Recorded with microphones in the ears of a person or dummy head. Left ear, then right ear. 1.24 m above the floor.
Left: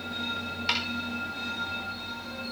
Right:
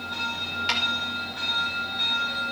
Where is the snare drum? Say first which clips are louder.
Right 2 dB; 10° right (ahead or behind), 5 m.